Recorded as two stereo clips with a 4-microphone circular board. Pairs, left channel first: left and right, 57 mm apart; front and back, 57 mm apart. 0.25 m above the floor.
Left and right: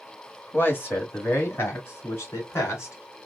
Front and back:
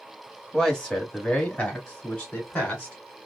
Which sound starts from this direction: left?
A man speaking, at 0.5 s.